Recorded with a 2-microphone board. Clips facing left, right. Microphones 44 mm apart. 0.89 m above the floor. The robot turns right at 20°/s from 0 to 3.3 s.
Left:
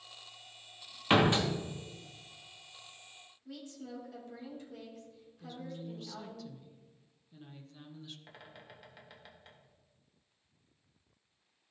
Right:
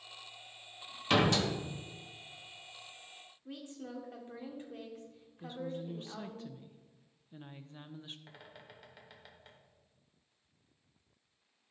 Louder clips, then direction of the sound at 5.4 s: Right 4 dB; 35° right (ahead or behind).